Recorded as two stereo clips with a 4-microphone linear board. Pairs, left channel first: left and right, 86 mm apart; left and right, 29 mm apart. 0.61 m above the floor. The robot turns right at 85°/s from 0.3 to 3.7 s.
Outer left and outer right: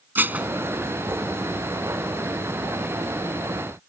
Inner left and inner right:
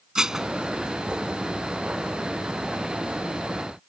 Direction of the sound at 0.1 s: 20° right (ahead or behind).